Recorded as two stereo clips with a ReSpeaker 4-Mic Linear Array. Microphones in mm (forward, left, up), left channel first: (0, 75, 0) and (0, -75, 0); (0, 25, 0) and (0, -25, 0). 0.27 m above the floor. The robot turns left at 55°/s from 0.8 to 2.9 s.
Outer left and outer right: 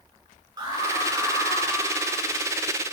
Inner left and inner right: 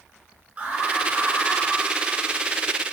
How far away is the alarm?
About 5.5 m.